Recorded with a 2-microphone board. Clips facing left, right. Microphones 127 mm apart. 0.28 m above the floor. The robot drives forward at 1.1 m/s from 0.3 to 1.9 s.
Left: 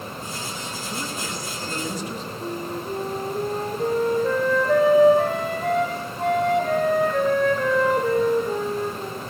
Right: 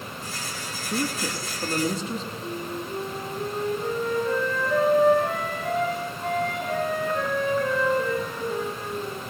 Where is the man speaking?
35° right (ahead or behind), 4.5 m; by 2.3 s 30° right (ahead or behind), 5.5 m.